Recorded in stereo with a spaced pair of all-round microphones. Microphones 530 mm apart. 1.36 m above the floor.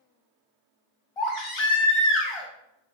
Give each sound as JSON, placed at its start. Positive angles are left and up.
{"t": 1.2, "sound": "a baby crying", "side_deg": 65, "distance_m": 0.8}